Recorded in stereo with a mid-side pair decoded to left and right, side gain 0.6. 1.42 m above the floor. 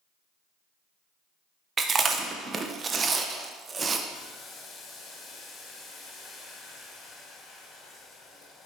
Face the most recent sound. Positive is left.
turn(degrees=45)